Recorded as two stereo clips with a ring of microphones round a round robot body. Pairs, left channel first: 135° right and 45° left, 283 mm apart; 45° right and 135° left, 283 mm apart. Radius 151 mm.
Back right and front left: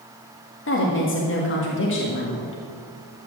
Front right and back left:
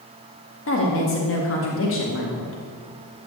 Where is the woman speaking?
90° right, 2 m.